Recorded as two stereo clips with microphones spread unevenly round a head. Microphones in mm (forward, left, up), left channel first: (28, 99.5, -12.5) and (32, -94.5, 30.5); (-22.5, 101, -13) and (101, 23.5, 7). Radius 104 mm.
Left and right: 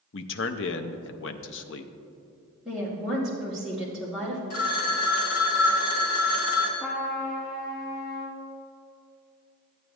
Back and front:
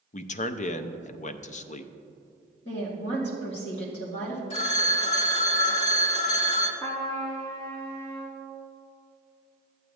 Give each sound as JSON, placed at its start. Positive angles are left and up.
{"t": 0.1, "sound": "a man speaking", "azimuth_deg": 120, "distance_m": 0.5}
{"t": 2.6, "sound": "a woman speaking", "azimuth_deg": -175, "distance_m": 1.9}
{"t": 4.5, "sound": "a phone ringing", "azimuth_deg": 105, "distance_m": 1.5}
{"t": 6.8, "sound": "a trumpet", "azimuth_deg": 170, "distance_m": 3.0}